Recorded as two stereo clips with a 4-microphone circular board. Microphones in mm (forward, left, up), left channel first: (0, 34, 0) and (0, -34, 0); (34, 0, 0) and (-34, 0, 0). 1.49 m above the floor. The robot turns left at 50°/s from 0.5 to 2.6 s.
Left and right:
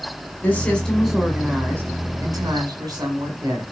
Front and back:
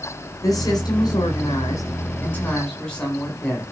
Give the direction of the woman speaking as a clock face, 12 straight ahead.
11 o'clock.